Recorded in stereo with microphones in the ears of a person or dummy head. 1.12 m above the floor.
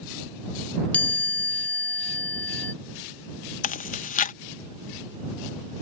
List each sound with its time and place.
0.9 s a chime: 10° left (ahead or behind)
3.6 s chewing: 40° left (ahead or behind)